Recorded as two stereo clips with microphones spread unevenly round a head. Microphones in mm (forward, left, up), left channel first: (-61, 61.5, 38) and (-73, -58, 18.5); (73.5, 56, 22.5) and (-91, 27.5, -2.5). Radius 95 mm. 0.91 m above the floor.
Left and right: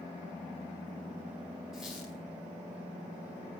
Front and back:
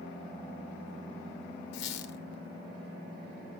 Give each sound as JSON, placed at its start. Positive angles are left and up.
{"t": 1.7, "sound": "a squeak", "azimuth_deg": -5, "distance_m": 0.9}